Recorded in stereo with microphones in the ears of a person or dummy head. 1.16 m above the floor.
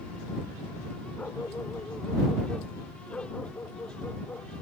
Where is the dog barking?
10° left (ahead or behind).